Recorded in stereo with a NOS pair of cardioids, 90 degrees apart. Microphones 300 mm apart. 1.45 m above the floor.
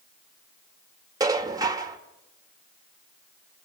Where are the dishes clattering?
10° right, 1.7 m.